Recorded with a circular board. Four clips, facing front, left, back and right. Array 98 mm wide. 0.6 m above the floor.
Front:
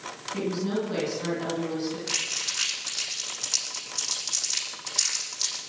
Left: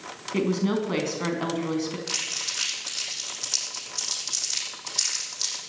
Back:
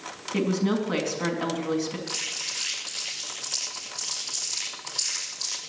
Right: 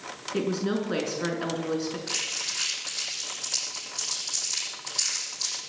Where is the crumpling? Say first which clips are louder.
Even, front 1 dB; 50° left, 7 m.